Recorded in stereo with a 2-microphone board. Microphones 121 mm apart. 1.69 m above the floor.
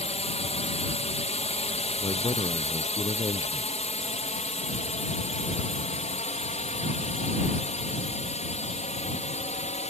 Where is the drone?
65° left (ahead or behind); by 9.9 s 70° left (ahead or behind).